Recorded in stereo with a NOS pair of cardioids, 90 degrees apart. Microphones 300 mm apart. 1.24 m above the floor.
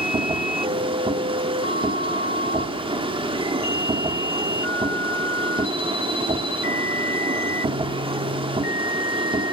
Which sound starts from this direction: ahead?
A machine running, at 0.0 s.